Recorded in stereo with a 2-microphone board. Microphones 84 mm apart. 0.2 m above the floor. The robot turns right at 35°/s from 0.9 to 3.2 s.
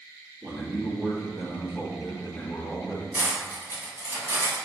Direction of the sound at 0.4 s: 5° right.